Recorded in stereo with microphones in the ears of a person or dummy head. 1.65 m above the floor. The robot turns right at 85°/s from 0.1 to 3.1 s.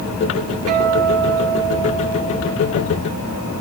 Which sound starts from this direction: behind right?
A guitar, at 0.7 s.